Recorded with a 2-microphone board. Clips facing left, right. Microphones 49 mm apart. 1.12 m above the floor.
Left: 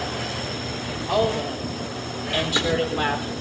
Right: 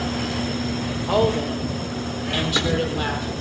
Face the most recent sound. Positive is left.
turn(degrees=20)  # may be behind; listen again after turning